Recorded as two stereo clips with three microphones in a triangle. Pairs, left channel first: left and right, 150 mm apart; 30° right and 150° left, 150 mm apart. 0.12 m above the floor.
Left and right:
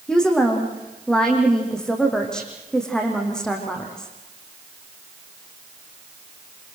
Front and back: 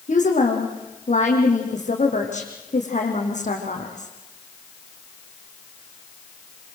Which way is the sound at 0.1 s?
5° left.